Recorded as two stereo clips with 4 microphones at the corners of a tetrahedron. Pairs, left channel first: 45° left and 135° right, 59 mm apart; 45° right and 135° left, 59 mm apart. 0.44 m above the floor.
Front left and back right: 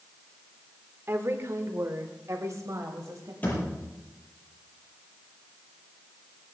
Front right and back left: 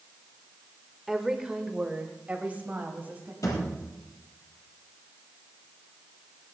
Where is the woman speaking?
140° right, 1.2 m; by 3.3 s 165° right, 3 m.